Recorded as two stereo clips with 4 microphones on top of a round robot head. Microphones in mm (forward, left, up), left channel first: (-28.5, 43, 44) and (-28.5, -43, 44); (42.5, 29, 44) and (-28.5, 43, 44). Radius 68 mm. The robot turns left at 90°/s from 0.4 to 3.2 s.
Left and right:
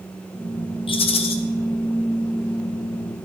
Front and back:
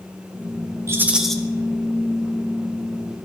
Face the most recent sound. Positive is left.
turn(degrees=-95)